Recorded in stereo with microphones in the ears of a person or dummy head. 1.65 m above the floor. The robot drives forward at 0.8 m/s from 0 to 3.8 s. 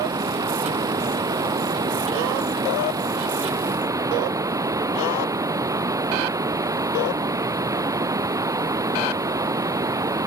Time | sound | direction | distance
0.0 | running water | 20° right (ahead or behind) | ?